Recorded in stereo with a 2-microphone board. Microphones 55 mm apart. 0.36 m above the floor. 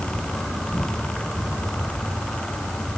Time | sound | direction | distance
0.0 | an insect | 15° left (ahead or behind) | 3 m